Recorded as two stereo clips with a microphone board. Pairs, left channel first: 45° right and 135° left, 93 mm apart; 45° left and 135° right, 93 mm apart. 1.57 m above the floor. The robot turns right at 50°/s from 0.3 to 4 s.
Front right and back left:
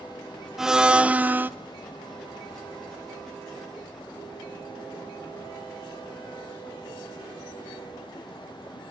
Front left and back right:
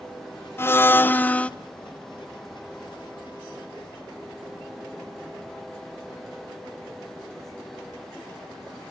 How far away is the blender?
About 0.7 m.